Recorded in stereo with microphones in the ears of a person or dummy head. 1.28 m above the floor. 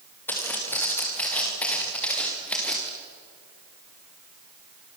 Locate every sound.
0.3 s footsteps: 15° left (ahead or behind), 6 m; by 2.9 s 10° left (ahead or behind), 7 m